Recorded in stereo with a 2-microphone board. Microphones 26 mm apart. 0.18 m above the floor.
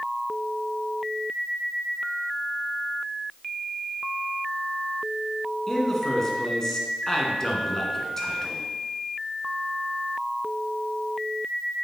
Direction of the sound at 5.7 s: 20° left (ahead or behind).